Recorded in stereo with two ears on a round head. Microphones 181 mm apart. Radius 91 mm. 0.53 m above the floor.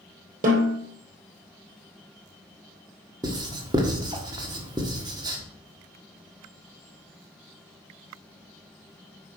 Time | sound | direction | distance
0.4 | a snare drum | 45° right (ahead or behind) | 3 m
3.2 | writing | 20° right (ahead or behind) | 1.4 m